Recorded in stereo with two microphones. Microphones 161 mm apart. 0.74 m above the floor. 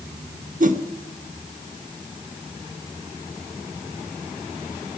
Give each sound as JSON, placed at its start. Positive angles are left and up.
{"t": 0.6, "sound": "a whoosh", "side_deg": -55, "distance_m": 1.0}